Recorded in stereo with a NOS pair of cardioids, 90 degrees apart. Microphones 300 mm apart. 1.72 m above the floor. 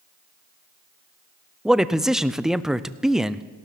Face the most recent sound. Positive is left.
turn(degrees=0)